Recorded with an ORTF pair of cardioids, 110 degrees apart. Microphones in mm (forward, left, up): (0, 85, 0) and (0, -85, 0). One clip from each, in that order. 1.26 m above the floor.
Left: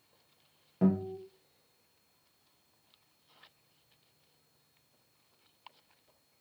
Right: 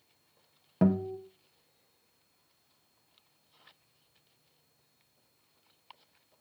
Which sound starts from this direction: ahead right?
A guitar, at 0.8 s.